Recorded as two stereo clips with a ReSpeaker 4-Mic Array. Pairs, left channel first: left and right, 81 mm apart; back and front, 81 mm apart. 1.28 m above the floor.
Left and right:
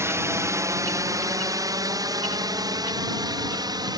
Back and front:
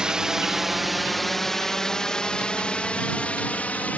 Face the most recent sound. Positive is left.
turn(degrees=-110)